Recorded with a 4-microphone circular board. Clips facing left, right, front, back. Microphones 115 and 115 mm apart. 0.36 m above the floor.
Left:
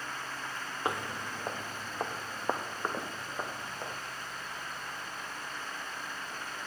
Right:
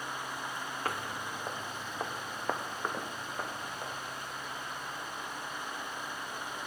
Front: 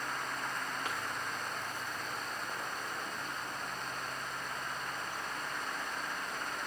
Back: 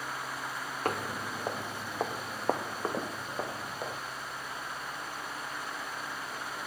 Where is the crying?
I don't hear crying.